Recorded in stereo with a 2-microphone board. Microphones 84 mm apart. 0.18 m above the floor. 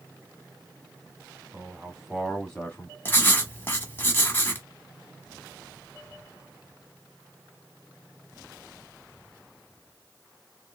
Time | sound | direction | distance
1.5 | a man speaking | 20° right (ahead or behind) | 1.3 m
3.0 | writing | 25° left (ahead or behind) | 0.9 m